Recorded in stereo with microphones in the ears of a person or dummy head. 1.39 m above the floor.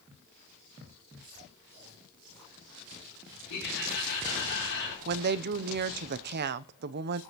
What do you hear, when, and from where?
3.5 s laughter: 60° left (ahead or behind), 3.5 m
5.0 s a woman speaking: 50° right (ahead or behind), 0.5 m